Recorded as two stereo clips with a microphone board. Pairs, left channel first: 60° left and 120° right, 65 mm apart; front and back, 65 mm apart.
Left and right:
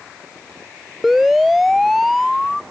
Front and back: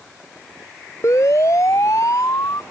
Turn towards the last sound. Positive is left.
turn(degrees=-25)